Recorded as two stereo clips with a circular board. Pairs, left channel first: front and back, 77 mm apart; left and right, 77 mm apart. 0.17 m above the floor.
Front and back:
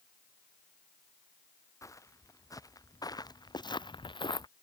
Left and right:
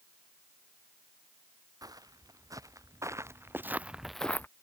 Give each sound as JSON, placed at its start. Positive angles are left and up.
{"t": 1.8, "sound": "footsteps", "azimuth_deg": -50}